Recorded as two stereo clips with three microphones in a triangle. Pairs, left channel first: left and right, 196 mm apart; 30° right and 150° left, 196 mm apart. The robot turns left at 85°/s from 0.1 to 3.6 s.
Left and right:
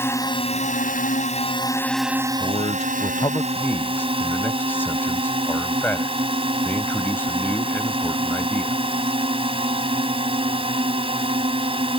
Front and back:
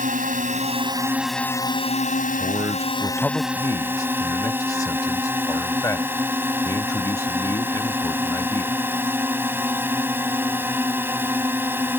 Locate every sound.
0.0 s a drone: 160° left; by 12.0 s 135° right
2.4 s a man speaking: 125° left; by 8.8 s 20° left